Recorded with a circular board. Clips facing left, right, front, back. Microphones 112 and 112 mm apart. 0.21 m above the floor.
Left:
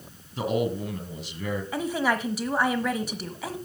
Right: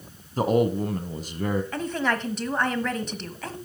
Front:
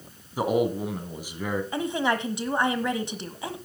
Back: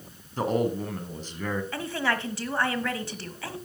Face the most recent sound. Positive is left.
turn(degrees=25)